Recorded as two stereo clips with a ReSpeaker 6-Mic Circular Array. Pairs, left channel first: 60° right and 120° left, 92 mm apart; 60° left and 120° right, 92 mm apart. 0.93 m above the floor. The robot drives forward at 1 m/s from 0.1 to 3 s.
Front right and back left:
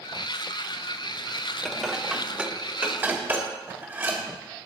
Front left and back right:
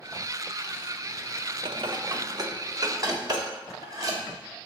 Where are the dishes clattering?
150° right, 0.9 m; by 4.2 s 170° right, 2 m.